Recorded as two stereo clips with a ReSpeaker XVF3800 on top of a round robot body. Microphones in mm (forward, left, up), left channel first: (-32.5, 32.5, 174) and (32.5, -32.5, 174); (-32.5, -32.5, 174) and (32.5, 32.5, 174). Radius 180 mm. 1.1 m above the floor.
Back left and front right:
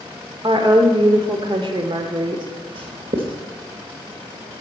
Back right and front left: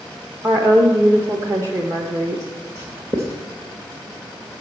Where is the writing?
15° right, 0.7 m.